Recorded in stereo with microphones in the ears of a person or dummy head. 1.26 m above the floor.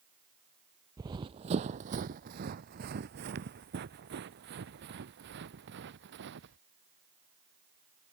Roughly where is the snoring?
No snoring in this recording.